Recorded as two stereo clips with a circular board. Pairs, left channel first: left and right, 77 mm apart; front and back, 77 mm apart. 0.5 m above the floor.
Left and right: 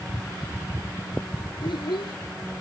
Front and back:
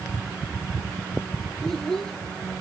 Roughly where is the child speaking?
Left.